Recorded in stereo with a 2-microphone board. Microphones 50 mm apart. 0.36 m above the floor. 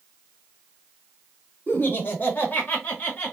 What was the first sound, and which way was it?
Laughter, 40° left (ahead or behind).